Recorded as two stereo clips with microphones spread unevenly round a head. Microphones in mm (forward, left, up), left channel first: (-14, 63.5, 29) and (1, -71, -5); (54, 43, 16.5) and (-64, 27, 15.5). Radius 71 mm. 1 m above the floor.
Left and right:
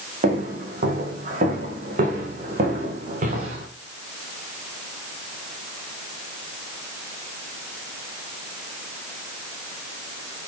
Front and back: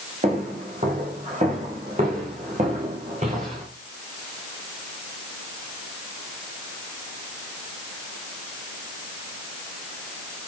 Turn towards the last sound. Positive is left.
turn(degrees=-120)